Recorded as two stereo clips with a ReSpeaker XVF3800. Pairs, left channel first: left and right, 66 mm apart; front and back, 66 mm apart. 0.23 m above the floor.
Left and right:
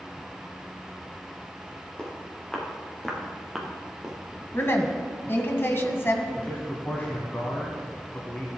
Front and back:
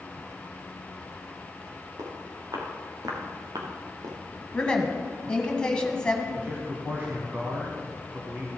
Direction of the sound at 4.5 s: 70° left.